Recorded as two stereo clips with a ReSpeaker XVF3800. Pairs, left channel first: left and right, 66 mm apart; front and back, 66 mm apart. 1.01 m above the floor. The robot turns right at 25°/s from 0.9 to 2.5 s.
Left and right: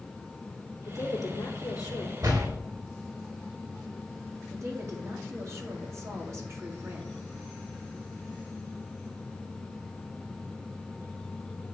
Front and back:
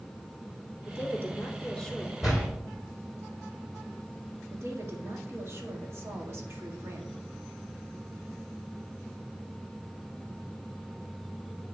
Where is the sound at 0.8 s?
55° left, 2.5 m; by 2.1 s 90° left, 2.5 m.